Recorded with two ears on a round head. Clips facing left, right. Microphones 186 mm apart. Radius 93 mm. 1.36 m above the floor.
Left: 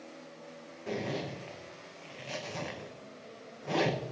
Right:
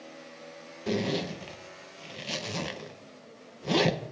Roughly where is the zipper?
Right.